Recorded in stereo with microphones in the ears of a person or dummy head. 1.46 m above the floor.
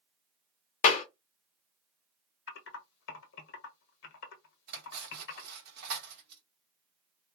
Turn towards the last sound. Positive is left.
turn(degrees=-60)  # may be behind; listen again after turning